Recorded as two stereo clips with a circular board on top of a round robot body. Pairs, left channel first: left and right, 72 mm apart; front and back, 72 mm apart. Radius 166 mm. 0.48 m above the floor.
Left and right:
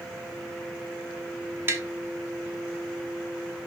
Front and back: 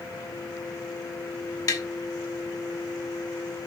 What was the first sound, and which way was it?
Tapping, 35° right.